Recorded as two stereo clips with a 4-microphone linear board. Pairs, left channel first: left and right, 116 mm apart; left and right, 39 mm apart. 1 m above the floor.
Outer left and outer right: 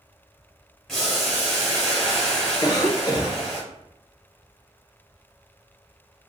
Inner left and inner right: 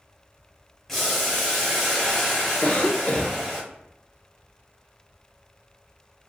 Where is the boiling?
Centre (ahead or behind), 1.3 m.